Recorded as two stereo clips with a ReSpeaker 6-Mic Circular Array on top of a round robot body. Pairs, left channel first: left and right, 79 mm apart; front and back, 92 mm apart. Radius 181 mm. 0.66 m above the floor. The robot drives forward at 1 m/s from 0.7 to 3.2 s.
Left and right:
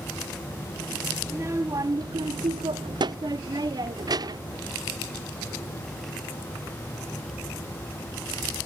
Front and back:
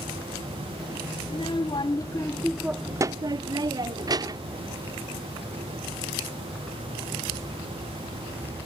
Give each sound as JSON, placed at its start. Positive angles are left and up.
{"t": 1.2, "sound": "a child speaking", "azimuth_deg": -30}